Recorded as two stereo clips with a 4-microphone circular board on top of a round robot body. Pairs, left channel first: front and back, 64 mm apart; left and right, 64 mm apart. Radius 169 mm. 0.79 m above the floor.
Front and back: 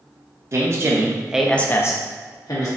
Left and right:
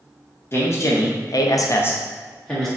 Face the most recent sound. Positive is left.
turn(degrees=5)